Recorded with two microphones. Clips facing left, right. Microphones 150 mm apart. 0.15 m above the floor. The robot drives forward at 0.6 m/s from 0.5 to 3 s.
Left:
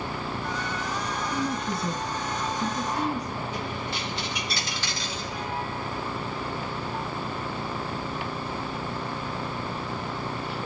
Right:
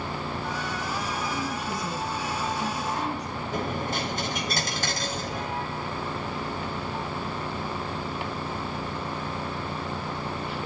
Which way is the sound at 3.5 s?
50° right (ahead or behind).